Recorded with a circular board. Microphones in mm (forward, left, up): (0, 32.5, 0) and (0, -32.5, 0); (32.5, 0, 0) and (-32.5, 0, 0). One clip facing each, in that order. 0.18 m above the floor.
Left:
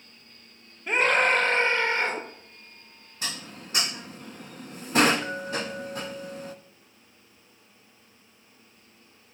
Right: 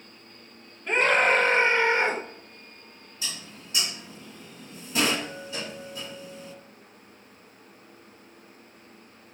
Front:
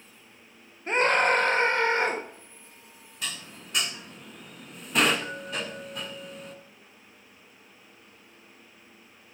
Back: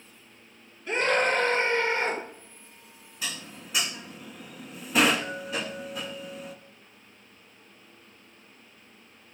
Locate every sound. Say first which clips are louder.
0.9 s a scream: right 1 dB, front 2 dB; 15° left, 1.9 m; by 2.2 s 25° right, 3 m
3.2 s dishes clattering: left 3 dB, back 1 dB; 95° left, 1.1 m